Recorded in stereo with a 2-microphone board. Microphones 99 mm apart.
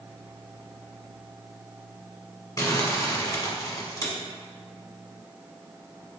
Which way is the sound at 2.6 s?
35° left (ahead or behind).